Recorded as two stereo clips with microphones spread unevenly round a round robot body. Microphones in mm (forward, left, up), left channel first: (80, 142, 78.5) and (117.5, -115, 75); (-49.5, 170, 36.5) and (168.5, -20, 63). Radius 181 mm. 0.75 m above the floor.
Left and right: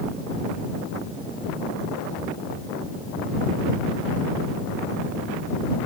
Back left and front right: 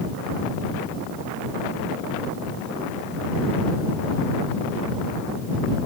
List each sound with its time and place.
Only background noise.